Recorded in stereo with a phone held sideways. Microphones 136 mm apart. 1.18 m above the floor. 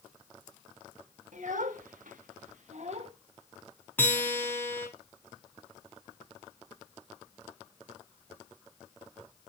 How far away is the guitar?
About 4 m.